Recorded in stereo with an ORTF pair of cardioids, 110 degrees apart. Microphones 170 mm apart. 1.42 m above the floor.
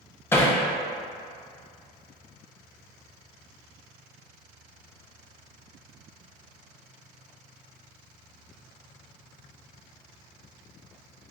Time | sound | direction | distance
0.3 | hammering | 15° left | 0.6 m